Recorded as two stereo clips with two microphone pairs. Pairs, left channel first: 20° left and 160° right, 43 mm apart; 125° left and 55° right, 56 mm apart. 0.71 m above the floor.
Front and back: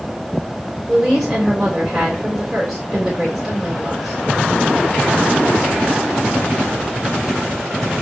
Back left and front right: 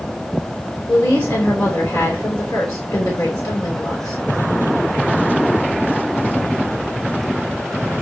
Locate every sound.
0.9 s a woman speaking: 120° left, 3 m